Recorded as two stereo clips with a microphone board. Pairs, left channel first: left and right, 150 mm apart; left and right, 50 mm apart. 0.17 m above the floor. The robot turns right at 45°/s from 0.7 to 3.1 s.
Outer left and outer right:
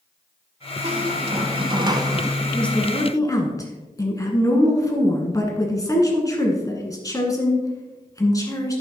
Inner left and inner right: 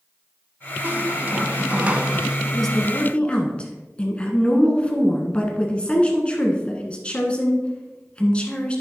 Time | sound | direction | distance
0.8 | a squeak | 95° right | 0.7 m
2.5 | a woman speaking | centre (ahead or behind) | 1.5 m